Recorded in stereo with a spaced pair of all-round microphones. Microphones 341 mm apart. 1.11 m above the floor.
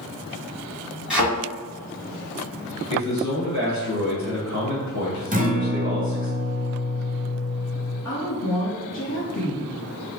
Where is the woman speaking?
65° left (ahead or behind), 1.0 m.